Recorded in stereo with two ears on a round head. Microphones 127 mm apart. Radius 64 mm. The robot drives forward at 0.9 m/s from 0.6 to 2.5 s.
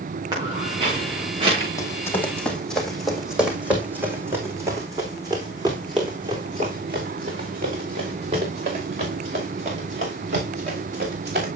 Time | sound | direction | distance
0.3 | footsteps | 30° right (ahead or behind) | 5.5 m
1.8 | running footsteps | 25° left (ahead or behind) | 1.9 m